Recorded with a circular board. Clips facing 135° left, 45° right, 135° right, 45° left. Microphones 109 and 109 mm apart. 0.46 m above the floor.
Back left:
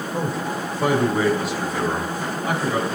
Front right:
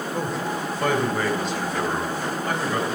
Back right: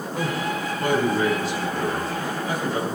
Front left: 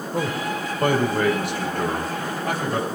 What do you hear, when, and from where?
0.1 s a man speaking: 60° left, 2 m; by 2.9 s 45° left, 4 m